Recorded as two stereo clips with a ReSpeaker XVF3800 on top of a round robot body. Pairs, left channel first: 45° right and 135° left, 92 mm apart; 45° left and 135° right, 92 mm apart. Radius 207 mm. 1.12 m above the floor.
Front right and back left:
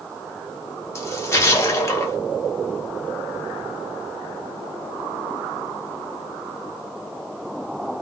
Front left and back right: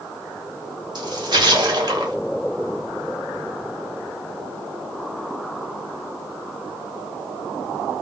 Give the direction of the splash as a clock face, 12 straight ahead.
3 o'clock.